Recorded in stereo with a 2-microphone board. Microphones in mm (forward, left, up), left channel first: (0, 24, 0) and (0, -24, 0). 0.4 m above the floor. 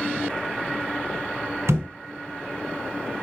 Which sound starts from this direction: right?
A thud, at 1.7 s.